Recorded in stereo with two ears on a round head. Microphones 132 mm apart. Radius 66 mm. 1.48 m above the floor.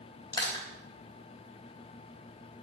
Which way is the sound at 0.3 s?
25° left (ahead or behind).